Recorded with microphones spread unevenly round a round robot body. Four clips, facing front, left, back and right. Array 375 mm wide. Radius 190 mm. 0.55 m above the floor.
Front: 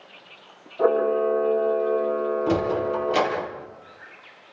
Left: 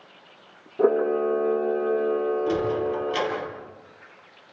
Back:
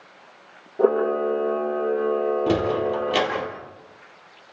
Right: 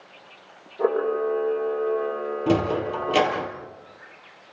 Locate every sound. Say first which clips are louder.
0.8 s a camera shutter: left 2 dB, even; 120° left, 4 m
2.5 s a sliding door: right 1 dB, back 1 dB; 115° right, 6 m